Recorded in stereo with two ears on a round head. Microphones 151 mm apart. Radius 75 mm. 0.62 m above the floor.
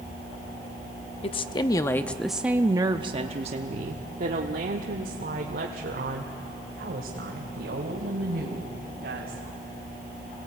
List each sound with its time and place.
1.2 s a woman speaking: 35° left (ahead or behind), 0.9 m; by 9.4 s 70° right (ahead or behind), 4 m